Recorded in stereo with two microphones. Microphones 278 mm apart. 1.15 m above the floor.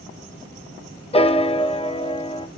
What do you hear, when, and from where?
1.1 s a piano: 20° left (ahead or behind), 0.6 m